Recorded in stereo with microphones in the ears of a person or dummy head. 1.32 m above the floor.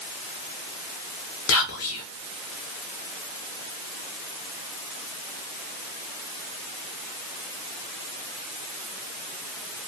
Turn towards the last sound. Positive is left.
turn(degrees=70)  # may be behind; listen again after turning